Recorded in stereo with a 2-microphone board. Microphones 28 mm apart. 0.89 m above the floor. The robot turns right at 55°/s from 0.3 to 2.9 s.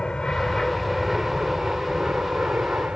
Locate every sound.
0.0 s an aircraft: 30° left (ahead or behind); by 3.0 s 60° right (ahead or behind)